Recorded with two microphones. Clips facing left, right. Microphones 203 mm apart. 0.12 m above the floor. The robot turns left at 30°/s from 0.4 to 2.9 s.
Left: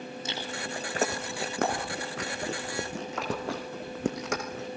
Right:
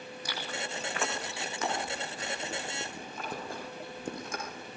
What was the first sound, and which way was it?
Chewing, 25° left (ahead or behind).